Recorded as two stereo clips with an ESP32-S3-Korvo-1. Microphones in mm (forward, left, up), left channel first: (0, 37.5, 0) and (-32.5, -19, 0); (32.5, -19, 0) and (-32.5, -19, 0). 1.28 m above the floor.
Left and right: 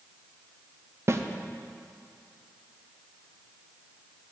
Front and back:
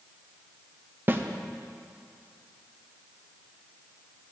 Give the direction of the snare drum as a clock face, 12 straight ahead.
5 o'clock.